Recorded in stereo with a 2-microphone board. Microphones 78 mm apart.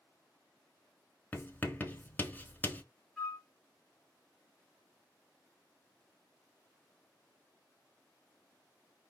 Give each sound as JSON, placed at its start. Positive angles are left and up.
{"t": 1.3, "sound": "writing", "side_deg": 25, "distance_m": 0.5}
{"t": 3.2, "sound": "a flute", "side_deg": 10, "distance_m": 0.7}